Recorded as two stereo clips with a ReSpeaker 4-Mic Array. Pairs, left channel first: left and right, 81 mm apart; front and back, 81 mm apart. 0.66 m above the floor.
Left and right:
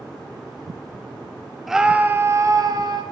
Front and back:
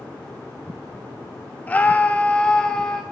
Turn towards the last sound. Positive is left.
turn(degrees=-80)